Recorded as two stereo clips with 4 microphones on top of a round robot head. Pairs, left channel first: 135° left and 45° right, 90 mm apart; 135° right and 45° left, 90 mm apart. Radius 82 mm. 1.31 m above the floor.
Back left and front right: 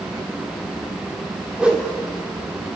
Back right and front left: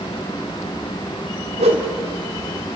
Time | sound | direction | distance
1.6 | a whoosh | 35° left | 2 m